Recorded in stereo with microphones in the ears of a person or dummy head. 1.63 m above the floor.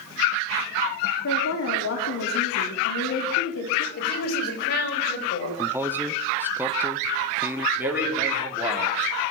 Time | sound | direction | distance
1.2 | a woman speaking | 75° left (ahead or behind) | 4.5 m
4.0 | a woman speaking | 55° left (ahead or behind) | 8.5 m
5.6 | a man speaking | 10° right (ahead or behind) | 1.5 m
7.8 | a man speaking | 10° right (ahead or behind) | 5.5 m